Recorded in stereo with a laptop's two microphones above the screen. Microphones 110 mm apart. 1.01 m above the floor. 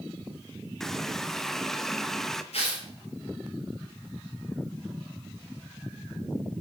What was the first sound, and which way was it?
A running tap, 5° left (ahead or behind).